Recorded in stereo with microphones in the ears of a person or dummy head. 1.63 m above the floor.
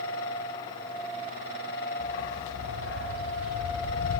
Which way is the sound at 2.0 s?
70° left (ahead or behind).